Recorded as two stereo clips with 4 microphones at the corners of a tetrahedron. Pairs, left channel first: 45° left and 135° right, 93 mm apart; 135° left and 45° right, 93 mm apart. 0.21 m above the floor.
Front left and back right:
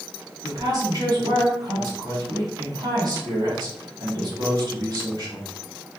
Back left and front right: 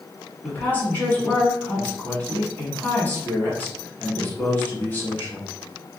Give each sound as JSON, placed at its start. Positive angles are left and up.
{"t": 0.4, "sound": "a woman speaking", "azimuth_deg": -165, "distance_m": 1.4}